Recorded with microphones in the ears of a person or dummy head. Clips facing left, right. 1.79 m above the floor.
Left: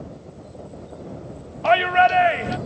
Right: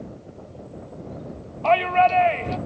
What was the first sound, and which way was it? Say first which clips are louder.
A shout: left 1 dB; 10° left (ahead or behind).